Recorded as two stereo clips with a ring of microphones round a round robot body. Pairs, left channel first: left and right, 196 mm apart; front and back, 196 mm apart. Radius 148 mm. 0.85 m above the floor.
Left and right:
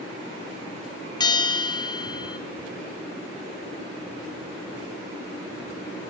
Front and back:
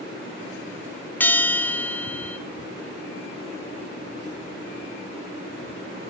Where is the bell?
65° left, 0.9 m.